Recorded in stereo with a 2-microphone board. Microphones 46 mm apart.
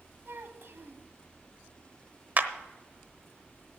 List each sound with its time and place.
0.2 s a child speaking: 55° right (ahead or behind), 1.2 m
2.4 s a clap: 40° right (ahead or behind), 1.0 m